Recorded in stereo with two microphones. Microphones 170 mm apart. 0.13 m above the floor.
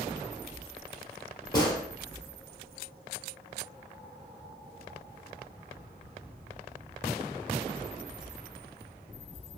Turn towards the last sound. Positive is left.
turn(degrees=25)  # may be behind; listen again after turning